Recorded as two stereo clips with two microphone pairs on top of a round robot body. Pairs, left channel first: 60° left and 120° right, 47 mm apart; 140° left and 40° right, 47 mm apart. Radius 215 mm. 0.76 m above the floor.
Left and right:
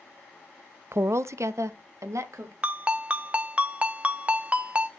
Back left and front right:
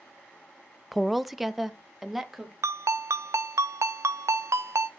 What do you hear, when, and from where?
0.9 s a woman speaking: 120° right, 0.5 m; by 2.5 s 125° right, 2 m
2.6 s a ringtone: 60° right, 0.7 m